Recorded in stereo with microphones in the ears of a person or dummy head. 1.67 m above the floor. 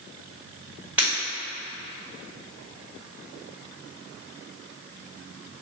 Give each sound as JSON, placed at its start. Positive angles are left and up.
{"t": 1.0, "sound": "breaking glass", "side_deg": -5, "distance_m": 1.9}